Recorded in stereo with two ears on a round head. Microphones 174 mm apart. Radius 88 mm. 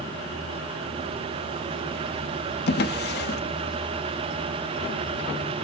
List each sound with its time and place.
2.7 s a drawer: 55° left (ahead or behind), 0.7 m